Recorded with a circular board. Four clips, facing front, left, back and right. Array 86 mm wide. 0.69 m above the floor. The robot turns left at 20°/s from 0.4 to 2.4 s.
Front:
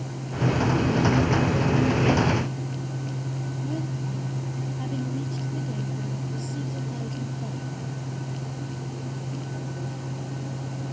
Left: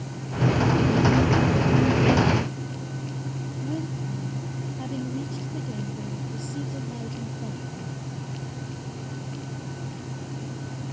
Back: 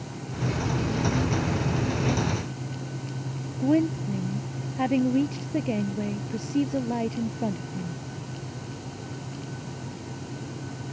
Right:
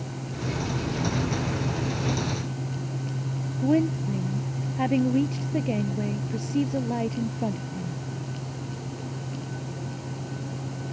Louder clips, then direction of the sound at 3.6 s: Right 10 dB, back 12 dB; 135° right.